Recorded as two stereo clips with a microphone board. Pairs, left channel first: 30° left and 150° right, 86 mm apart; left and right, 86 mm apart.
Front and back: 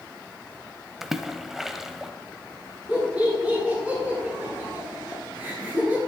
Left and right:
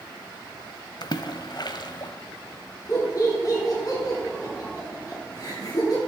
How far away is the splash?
About 0.9 m.